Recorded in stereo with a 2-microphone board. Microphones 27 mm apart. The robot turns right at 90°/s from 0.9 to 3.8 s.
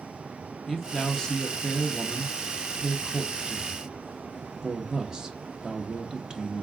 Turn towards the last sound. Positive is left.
turn(degrees=-25)  # may be behind; listen again after turning